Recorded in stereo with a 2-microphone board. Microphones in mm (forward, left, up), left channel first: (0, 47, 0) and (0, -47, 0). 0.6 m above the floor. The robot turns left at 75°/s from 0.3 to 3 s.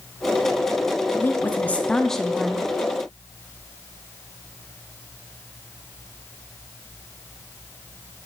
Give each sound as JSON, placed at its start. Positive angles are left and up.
{"t": 1.1, "sound": "a woman speaking", "side_deg": 20, "distance_m": 0.6}